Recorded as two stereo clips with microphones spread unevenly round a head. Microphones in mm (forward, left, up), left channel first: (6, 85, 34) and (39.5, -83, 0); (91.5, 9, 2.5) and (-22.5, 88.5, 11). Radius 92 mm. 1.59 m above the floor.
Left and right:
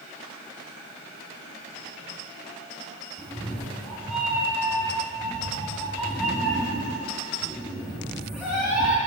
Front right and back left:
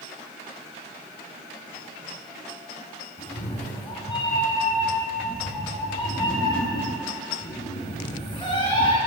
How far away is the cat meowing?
About 3 m.